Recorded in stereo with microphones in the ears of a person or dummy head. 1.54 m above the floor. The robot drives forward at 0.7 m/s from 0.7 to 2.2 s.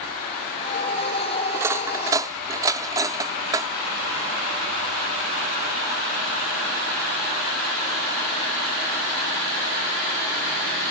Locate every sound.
1.5 s cutlery clinking: 15° right (ahead or behind)